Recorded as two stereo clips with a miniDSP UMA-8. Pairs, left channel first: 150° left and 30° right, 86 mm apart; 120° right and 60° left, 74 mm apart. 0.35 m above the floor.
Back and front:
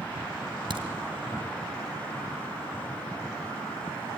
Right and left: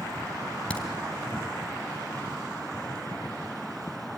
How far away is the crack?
About 1.8 m.